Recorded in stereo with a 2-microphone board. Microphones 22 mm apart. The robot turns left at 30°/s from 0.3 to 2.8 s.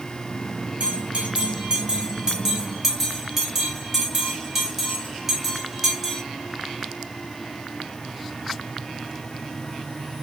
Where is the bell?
75° right (ahead or behind), 1.2 m; by 6.2 s 15° right (ahead or behind), 1.2 m.